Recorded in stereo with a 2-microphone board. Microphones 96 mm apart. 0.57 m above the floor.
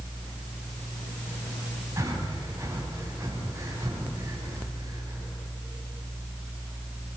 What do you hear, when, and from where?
2.0 s breathing: 35° right (ahead or behind), 4 m